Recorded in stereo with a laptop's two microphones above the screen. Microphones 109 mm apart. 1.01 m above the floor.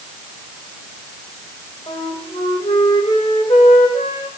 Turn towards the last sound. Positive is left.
turn(degrees=65)  # may be behind; listen again after turning